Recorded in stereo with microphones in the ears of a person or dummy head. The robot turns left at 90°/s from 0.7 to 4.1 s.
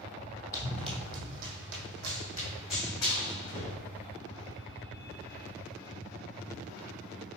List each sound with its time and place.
0.5 s running footsteps: 20° left (ahead or behind), 2.5 m; by 3.8 s 70° left (ahead or behind), 4.5 m